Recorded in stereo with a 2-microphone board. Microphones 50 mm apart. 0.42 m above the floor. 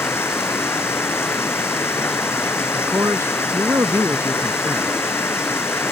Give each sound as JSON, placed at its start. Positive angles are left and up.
{"t": 0.0, "sound": "running water", "side_deg": 55}
{"t": 2.7, "sound": "a man speaking", "side_deg": -70}